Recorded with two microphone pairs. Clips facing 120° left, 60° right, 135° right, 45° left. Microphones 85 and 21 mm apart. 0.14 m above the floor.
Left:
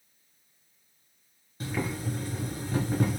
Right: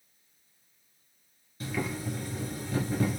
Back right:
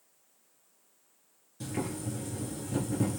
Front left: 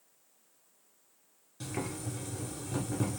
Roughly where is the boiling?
Left.